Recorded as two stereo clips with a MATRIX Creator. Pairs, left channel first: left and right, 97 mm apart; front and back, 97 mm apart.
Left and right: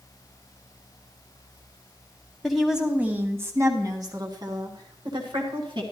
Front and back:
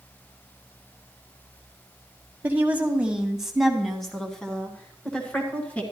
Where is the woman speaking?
175° left, 1.2 m; by 5.8 s 75° right, 2.5 m.